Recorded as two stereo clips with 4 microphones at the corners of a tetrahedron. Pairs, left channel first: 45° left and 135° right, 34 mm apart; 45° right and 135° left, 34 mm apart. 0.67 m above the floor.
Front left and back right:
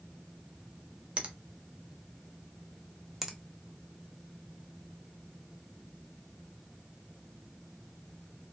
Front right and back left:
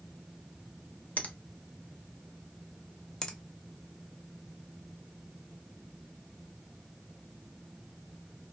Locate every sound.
1.2 s a finger snap: 85° right, 0.6 m
3.2 s a finger snap: 65° right, 0.5 m